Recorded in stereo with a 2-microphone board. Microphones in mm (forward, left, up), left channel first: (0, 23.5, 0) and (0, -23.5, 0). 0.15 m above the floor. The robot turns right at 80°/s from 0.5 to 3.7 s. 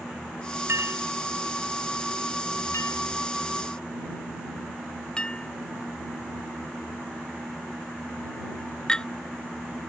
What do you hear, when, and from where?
0.7 s a clink: 75° right (ahead or behind); by 9.1 s 15° left (ahead or behind)